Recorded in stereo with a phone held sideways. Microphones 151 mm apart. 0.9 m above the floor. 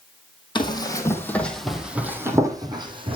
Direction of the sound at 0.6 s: 30° left (ahead or behind).